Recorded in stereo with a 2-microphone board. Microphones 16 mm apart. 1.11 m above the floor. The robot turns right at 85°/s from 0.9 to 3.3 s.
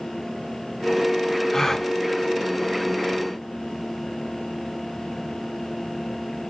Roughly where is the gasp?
Left.